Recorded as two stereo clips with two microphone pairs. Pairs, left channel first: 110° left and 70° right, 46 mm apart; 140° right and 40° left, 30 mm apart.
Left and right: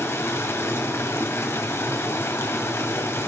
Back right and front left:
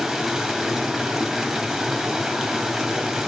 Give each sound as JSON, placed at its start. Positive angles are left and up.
{"t": 0.0, "sound": "running water", "azimuth_deg": 120, "distance_m": 1.8}